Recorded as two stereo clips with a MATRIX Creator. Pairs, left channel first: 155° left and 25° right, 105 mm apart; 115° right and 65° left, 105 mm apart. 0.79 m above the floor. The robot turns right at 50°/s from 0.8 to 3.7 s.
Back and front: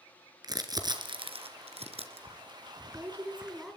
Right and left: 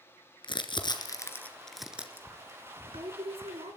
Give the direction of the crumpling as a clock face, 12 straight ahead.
2 o'clock.